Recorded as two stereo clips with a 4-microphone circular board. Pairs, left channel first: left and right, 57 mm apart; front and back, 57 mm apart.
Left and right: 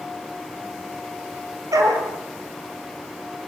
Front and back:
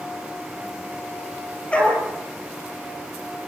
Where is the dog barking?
70° right, 5 m.